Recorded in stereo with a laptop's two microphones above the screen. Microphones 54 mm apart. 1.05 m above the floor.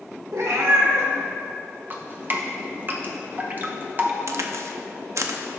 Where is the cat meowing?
70° right (ahead or behind), 1.3 m.